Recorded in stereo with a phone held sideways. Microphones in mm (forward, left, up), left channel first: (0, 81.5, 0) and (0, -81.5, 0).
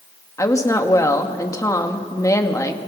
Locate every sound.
0.4 s a woman speaking: 20° left (ahead or behind), 1.8 m